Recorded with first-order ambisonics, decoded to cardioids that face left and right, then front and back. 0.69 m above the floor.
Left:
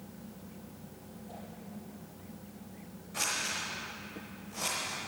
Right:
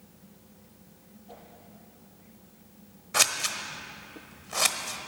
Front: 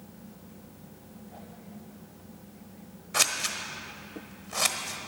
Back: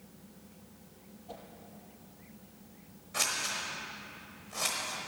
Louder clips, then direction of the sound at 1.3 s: Even, back 3 dB; 160° right.